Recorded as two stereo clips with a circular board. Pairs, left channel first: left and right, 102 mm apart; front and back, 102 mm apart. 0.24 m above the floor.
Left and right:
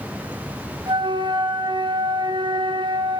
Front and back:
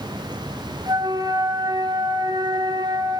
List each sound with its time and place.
0.9 s a flute: 135° right, 1.5 m